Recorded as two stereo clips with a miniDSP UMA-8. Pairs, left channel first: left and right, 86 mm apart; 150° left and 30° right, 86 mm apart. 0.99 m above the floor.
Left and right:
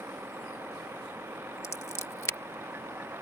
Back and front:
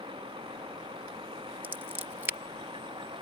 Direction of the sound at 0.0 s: 25° right.